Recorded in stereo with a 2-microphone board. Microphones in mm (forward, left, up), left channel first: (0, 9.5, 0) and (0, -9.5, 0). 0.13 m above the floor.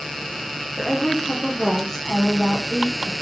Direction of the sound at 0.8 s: 40° left (ahead or behind).